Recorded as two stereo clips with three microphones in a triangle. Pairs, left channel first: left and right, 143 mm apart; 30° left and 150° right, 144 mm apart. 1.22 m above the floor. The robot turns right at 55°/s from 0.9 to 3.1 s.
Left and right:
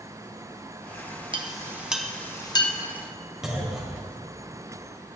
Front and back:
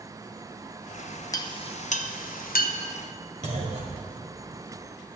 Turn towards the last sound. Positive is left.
turn(degrees=-175)